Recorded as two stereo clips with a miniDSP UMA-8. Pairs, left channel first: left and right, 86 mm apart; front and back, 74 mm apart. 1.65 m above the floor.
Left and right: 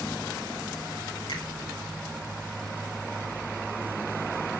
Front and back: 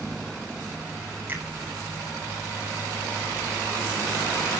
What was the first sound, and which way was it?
A finger snap, 120° left.